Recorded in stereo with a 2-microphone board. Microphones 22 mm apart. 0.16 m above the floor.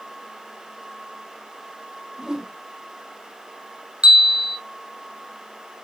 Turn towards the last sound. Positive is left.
turn(degrees=-65)  # may be behind; listen again after turning